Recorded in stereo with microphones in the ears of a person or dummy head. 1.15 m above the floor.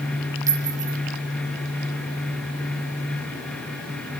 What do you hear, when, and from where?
0.5 s a clink: 20° right (ahead or behind), 1.4 m